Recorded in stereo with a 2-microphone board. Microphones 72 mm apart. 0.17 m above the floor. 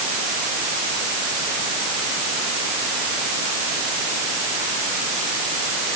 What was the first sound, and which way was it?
Only background noise.